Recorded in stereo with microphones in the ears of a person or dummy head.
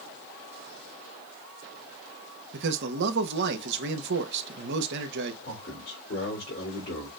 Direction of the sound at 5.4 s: 50° left (ahead or behind).